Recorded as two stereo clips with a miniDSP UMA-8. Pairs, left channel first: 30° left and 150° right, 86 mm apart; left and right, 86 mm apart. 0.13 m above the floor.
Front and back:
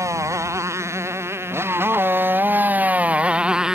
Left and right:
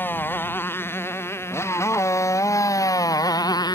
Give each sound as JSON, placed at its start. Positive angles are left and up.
{"t": 0.0, "sound": "a motorcycle", "azimuth_deg": 155}